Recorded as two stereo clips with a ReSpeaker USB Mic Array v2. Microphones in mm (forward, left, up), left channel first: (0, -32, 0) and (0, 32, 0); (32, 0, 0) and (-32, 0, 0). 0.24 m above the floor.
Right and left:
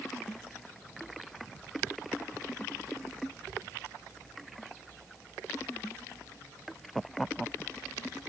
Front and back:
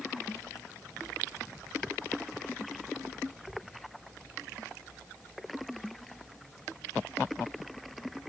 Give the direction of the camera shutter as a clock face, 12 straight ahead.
I don't hear a camera shutter.